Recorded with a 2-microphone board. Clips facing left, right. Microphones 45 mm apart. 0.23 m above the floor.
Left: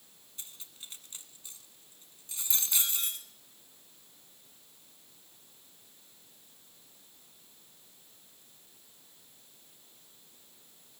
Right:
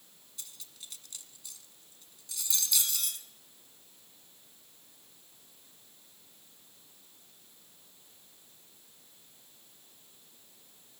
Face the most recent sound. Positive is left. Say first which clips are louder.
# left 1 dB
turn(degrees=30)  # may be behind; listen again after turning